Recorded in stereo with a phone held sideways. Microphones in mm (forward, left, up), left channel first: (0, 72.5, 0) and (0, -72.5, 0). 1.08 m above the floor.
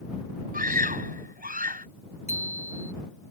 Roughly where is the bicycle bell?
Left.